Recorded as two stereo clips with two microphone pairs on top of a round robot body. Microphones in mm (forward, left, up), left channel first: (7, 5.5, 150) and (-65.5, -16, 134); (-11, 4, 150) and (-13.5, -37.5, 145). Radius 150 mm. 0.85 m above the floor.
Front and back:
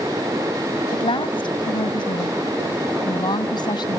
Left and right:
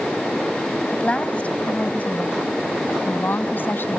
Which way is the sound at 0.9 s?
25° left.